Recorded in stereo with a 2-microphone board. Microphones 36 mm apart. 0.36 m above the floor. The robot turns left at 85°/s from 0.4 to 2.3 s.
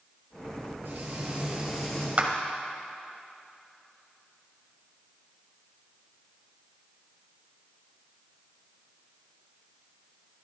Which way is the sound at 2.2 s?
40° right (ahead or behind).